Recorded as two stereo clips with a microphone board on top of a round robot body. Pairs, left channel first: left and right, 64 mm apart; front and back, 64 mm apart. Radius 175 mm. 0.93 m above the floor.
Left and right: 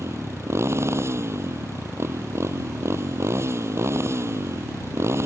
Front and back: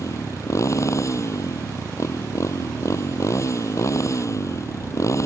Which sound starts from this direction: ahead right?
A motorcycle, at 0.0 s.